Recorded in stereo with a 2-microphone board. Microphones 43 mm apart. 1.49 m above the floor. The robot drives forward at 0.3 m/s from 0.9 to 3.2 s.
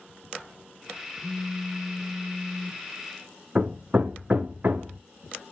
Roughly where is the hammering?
Right.